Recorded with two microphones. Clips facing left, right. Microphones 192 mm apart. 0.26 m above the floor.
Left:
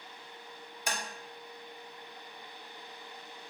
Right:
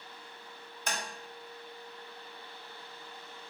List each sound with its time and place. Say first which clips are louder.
0.9 s tapping: even; 10° left (ahead or behind), 1.0 m